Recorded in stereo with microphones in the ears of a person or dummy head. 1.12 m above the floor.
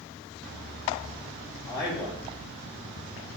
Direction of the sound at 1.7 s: 20° left (ahead or behind).